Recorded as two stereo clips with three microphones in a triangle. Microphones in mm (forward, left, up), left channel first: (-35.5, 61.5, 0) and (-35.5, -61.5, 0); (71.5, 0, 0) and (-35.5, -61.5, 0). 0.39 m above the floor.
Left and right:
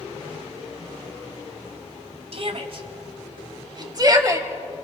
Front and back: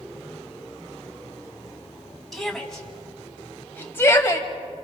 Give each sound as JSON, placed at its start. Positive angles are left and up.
{"t": 2.3, "sound": "a shout", "azimuth_deg": -60, "distance_m": 2.5}